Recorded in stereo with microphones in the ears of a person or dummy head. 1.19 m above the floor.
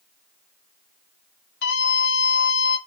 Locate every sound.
1.6 s a scream: 60° left (ahead or behind), 3 m